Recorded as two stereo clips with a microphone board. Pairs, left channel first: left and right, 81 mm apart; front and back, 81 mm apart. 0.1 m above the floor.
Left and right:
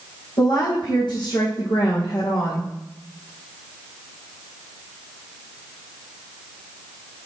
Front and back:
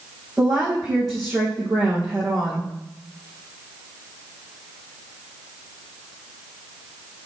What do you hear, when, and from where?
0.4 s a woman speaking: 90° left, 4 m